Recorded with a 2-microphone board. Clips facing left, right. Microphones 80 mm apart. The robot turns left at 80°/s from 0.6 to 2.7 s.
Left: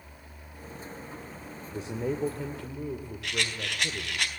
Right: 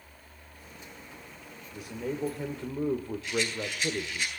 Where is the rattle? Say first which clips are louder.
Left 1 dB; 75° left (ahead or behind), 3.5 m.